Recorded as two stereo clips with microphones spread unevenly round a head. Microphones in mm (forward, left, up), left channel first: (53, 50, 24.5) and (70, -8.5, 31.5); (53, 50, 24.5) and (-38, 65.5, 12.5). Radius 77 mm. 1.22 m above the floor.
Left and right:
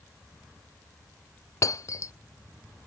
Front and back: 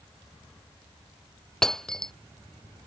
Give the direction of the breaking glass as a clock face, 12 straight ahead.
10 o'clock.